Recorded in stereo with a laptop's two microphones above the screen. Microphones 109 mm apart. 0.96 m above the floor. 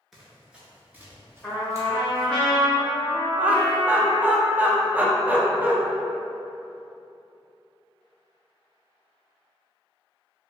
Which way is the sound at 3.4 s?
15° right (ahead or behind).